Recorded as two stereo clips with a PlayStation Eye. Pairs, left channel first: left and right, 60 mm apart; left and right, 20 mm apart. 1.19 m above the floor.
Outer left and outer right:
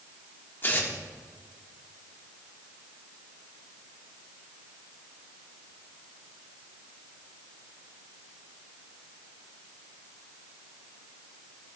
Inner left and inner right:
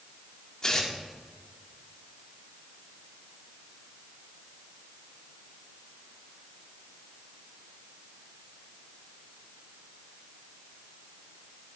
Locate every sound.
0.6 s tearing paper: 35° left (ahead or behind), 1.5 m